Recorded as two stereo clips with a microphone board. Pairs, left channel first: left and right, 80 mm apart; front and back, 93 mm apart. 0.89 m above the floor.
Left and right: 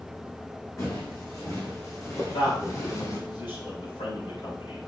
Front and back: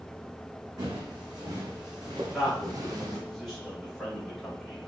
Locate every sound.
0.8 s footsteps: 140° left, 3 m; by 3.2 s 135° left, 1.9 m
2.3 s a man speaking: 85° left, 3.5 m